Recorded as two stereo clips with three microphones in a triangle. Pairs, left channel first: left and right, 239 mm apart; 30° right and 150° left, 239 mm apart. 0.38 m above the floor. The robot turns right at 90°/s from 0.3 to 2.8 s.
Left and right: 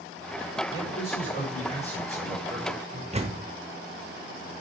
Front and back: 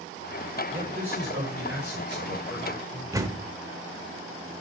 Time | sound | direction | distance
0.7 | a man speaking | 65° left | 5.5 m
3.1 | a door slam | 140° right | 0.8 m